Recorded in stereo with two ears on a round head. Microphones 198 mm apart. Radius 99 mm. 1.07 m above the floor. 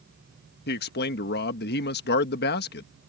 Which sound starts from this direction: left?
A man speaking, at 0.7 s.